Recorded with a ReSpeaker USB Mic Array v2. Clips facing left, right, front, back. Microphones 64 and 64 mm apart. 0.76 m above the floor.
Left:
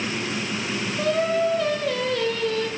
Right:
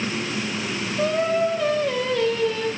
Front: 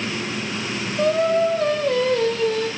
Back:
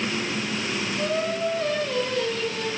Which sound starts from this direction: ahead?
Singing, at 1.0 s.